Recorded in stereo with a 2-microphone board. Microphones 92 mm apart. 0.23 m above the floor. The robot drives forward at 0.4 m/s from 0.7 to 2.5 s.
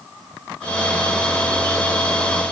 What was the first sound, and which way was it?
Only background noise.